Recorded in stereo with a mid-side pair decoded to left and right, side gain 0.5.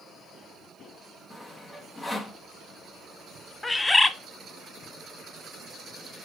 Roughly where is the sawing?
Ahead.